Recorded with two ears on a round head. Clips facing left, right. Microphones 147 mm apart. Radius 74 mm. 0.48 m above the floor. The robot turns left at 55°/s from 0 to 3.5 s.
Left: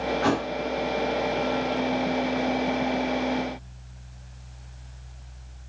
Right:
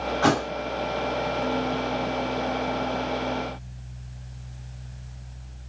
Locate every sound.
0.2 s a thud: 60° right (ahead or behind), 0.5 m; by 0.5 s 45° right (ahead or behind), 0.5 m